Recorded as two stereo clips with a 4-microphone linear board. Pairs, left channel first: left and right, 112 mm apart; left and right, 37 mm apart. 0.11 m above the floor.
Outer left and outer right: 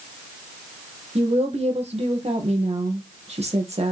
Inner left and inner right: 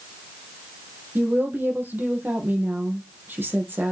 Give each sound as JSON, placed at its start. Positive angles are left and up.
{"t": 1.1, "sound": "a woman speaking", "side_deg": -70, "distance_m": 3.0}